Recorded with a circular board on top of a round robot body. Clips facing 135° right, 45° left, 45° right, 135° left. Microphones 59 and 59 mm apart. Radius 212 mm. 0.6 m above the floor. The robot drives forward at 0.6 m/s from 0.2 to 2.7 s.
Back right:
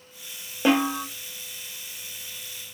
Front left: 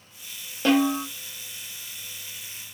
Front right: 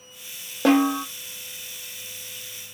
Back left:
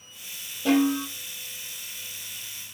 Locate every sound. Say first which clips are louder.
0.7 s a snare drum: front left 1 dB, front right 3 dB; 65° right, 1.0 m; by 1.1 s 80° right, 0.9 m